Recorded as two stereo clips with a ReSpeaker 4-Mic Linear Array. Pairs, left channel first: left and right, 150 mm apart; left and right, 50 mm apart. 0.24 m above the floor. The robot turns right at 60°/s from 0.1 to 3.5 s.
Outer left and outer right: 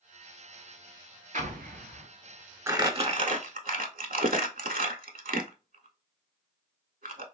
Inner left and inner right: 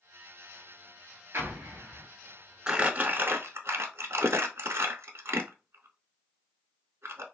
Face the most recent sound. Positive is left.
turn(degrees=-70)  # may be behind; listen again after turning